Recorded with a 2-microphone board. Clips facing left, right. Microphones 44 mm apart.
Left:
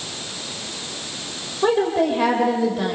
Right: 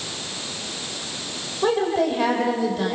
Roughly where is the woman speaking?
Centre.